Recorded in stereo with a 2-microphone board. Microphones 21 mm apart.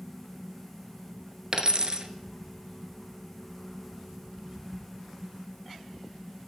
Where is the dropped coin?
35° right (ahead or behind), 0.8 m.